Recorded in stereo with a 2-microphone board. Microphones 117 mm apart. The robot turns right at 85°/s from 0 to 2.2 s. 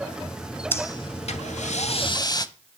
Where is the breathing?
20° left, 1.0 m; by 2.5 s 145° left, 1.0 m.